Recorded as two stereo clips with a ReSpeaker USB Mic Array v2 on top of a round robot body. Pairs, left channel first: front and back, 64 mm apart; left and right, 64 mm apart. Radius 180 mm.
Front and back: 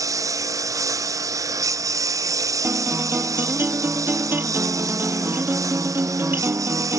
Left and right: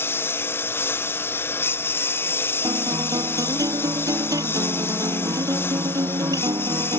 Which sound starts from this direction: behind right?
A guitar, at 2.6 s.